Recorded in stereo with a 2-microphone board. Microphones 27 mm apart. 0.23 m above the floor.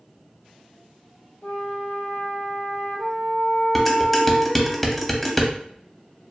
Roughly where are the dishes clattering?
Centre.